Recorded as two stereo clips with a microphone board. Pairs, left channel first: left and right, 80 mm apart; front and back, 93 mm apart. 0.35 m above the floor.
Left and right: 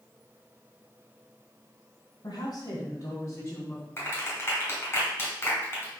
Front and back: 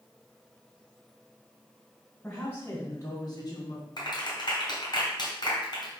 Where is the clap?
35° left, 3 m.